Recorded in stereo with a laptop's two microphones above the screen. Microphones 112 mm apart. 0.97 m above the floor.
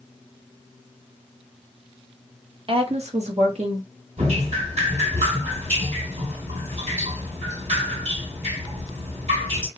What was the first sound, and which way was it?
A woman speaking, 50° right (ahead or behind).